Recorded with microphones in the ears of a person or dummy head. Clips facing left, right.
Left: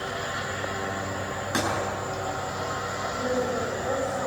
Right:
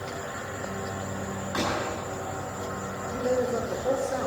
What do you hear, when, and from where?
1.5 s a thud: 50° left (ahead or behind), 8.5 m
3.1 s a man speaking: 45° right (ahead or behind), 4 m